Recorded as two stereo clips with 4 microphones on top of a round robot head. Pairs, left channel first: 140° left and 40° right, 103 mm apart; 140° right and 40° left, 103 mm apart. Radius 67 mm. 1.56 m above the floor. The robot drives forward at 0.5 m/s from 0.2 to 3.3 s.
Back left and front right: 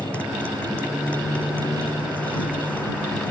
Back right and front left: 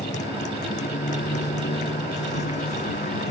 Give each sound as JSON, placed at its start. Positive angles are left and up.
{"t": 0.0, "sound": "a motorcycle", "azimuth_deg": -145}